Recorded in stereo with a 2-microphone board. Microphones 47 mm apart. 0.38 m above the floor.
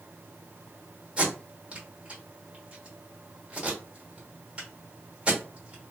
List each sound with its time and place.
1.2 s tape being pulled: 25° right (ahead or behind), 1.2 m